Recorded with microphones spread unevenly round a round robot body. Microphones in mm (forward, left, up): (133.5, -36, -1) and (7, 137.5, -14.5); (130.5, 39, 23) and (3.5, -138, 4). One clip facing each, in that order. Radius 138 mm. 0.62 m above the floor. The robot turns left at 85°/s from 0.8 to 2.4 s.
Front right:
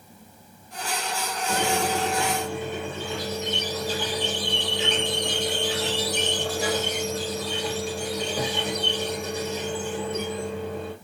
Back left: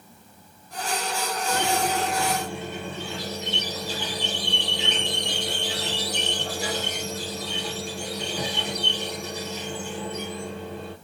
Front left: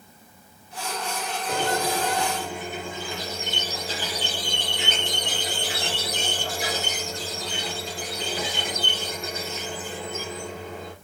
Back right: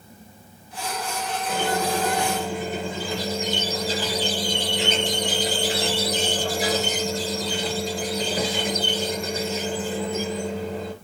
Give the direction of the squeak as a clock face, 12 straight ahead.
1 o'clock.